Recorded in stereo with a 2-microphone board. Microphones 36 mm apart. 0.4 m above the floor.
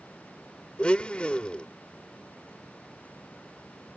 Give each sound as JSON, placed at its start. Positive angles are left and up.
{"t": 0.8, "sound": "a blender", "side_deg": 30}